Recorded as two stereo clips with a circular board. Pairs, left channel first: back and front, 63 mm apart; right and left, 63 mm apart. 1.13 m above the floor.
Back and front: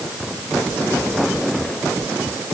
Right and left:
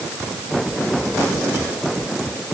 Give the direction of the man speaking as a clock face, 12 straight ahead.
No man speaking in this recording.